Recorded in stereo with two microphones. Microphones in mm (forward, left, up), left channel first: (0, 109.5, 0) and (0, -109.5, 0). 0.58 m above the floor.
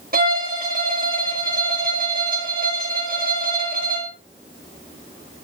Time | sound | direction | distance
0.1 | a violin | 45° right (ahead or behind) | 3 m